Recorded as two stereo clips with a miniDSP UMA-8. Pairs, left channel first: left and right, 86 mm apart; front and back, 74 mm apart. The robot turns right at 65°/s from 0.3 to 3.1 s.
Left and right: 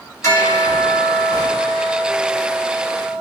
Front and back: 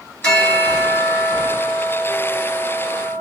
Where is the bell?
70° left, 1.8 m; by 3.2 s 110° right, 1.8 m.